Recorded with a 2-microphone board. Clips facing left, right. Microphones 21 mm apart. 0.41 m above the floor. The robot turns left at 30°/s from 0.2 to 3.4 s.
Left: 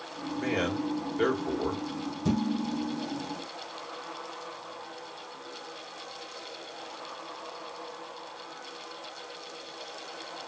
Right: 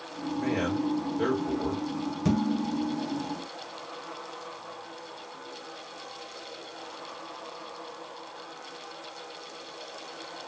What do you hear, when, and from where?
0.4 s a man speaking: 140° left, 1.4 m; by 1.8 s 95° left, 1.4 m
2.2 s dishes clattering: 40° right (ahead or behind), 2 m; by 3.1 s 60° right (ahead or behind), 2 m